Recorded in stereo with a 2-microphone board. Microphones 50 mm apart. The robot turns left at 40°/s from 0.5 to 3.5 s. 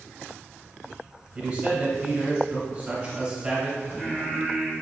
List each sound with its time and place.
1.4 s a man speaking: 20° right (ahead or behind), 1.1 m
3.8 s singing: 40° left (ahead or behind), 1.9 m